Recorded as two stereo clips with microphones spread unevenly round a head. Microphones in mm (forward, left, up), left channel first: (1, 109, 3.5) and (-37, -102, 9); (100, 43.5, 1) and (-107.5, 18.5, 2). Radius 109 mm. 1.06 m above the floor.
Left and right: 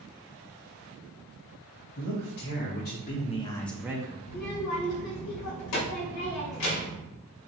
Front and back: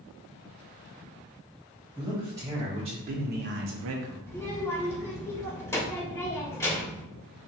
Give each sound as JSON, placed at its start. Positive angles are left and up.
{"t": 2.0, "sound": "a man speaking", "azimuth_deg": 105, "distance_m": 1.5}
{"t": 4.3, "sound": "a child speaking", "azimuth_deg": 85, "distance_m": 1.9}